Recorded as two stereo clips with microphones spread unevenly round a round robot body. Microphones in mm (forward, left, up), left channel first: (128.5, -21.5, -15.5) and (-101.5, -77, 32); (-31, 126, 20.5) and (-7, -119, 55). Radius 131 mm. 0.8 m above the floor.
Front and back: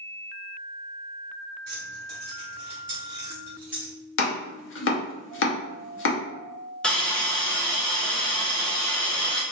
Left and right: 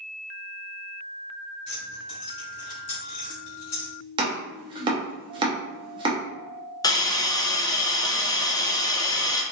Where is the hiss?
65° left, 0.6 m.